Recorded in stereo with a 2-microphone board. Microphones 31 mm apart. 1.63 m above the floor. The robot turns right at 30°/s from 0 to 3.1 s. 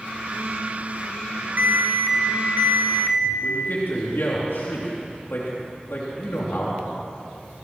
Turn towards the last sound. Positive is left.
turn(degrees=70)  # may be behind; listen again after turning